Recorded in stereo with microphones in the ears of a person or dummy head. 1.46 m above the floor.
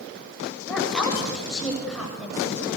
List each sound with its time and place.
0.7 s a woman speaking: 5° right (ahead or behind), 8.5 m